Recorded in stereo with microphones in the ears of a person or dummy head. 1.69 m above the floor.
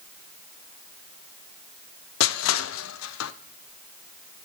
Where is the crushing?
80° left, 0.6 m.